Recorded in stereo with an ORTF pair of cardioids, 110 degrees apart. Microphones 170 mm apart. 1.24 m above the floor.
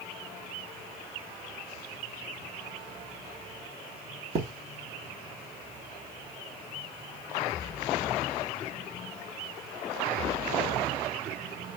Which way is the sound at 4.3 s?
40° right.